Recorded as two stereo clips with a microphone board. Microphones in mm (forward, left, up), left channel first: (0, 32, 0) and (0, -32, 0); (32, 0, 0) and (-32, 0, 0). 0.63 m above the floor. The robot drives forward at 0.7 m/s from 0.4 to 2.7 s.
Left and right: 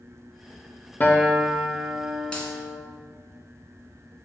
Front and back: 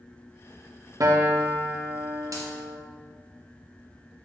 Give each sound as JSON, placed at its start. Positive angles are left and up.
{"t": 1.0, "sound": "a guitar", "azimuth_deg": 150, "distance_m": 0.6}
{"t": 2.3, "sound": "a dropped coin", "azimuth_deg": 165, "distance_m": 1.2}